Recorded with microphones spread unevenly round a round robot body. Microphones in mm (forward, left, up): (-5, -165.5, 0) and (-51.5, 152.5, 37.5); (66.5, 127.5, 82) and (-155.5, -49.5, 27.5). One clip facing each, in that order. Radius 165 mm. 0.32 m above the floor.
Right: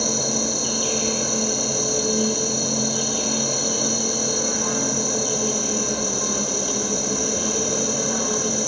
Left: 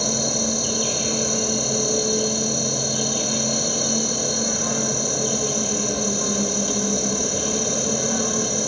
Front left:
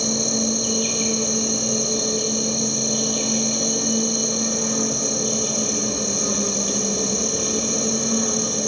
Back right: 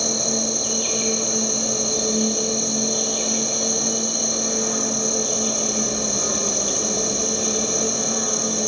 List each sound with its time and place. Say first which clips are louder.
0.0 s an insect: even, front left 2 dB; 95° left, 6.5 m